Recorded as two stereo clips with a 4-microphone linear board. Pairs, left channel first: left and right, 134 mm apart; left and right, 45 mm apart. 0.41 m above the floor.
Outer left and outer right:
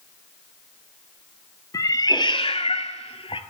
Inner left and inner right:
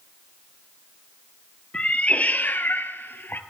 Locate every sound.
1.7 s a cat meowing: 25° left (ahead or behind), 0.8 m; by 3.4 s 45° left (ahead or behind), 0.6 m